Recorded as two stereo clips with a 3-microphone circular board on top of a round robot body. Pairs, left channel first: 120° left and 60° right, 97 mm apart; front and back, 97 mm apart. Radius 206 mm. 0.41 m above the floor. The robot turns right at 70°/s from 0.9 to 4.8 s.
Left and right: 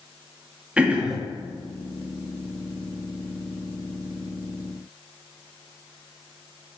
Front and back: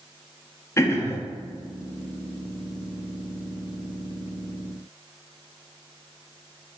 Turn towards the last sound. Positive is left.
turn(degrees=-80)